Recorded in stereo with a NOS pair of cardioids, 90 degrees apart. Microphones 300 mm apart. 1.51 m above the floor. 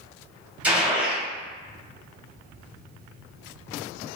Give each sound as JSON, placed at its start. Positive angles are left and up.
{"t": 0.6, "sound": "a gunshot", "azimuth_deg": -5, "distance_m": 1.7}